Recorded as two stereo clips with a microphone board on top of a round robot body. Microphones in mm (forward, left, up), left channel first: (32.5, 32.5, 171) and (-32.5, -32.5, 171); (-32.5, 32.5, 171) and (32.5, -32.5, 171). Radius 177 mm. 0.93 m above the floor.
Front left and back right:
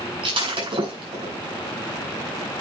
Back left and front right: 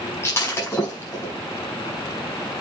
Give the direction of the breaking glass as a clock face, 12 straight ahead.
5 o'clock.